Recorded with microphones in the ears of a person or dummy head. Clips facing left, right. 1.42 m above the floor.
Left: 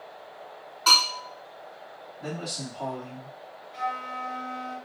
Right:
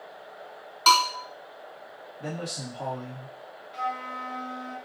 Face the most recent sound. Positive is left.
turn(degrees=-40)  # may be behind; listen again after turning